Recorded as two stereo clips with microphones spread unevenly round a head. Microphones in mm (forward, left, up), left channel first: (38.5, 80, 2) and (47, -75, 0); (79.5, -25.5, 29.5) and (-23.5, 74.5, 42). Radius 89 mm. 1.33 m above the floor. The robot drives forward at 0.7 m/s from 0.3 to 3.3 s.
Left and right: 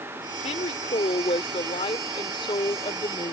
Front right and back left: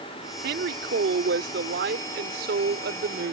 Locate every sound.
0.4 s a woman speaking: 155° left; by 3.3 s 160° left